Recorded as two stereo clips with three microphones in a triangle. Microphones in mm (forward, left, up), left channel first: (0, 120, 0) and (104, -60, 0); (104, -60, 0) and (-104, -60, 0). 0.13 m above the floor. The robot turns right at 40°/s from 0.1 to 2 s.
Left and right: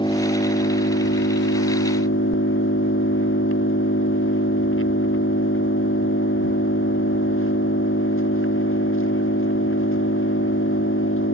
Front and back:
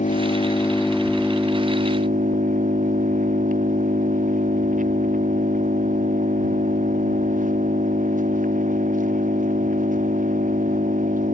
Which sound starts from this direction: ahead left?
An engine running, at 0.0 s.